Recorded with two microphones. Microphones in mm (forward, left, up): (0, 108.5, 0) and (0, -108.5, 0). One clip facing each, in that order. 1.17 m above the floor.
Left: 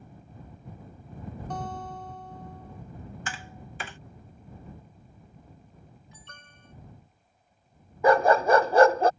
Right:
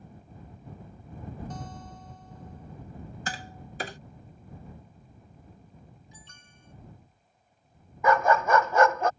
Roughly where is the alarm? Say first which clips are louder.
Left 2 dB; left.